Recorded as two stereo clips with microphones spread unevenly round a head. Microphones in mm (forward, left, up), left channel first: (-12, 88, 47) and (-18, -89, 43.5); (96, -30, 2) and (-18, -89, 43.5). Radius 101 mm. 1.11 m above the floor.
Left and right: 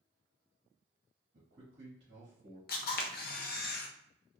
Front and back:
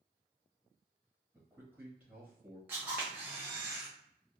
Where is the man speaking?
70° right, 1.3 m.